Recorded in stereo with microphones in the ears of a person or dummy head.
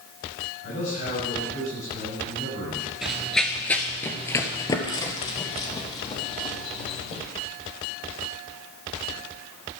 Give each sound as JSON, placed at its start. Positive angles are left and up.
{"t": 0.6, "sound": "a man speaking", "side_deg": 55, "distance_m": 7.0}
{"t": 3.0, "sound": "running footsteps", "side_deg": -5, "distance_m": 1.2}